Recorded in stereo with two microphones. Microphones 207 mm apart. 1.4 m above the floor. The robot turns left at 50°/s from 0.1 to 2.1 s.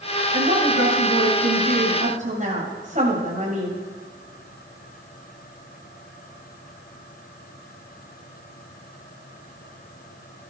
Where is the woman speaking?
50° right, 7.5 m; by 3.8 s 140° right, 7.5 m.